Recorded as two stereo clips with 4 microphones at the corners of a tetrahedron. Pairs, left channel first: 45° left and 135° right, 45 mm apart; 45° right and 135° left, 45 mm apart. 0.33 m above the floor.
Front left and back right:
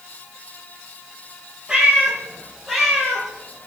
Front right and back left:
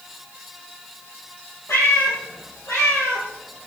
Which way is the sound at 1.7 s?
60° right.